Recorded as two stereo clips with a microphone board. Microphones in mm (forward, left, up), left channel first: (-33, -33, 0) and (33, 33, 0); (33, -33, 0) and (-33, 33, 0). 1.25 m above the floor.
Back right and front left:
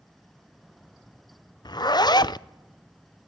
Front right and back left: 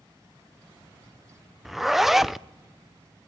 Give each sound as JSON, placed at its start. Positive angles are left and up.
{"t": 1.6, "sound": "a zipper", "azimuth_deg": -140, "distance_m": 0.6}